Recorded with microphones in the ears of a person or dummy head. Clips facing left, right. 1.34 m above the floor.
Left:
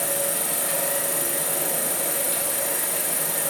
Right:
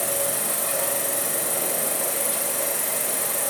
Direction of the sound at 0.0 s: 10° left (ahead or behind).